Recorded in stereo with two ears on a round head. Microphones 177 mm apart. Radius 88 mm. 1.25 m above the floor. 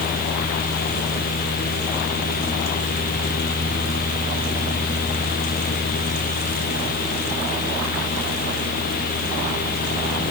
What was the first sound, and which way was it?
Only background noise.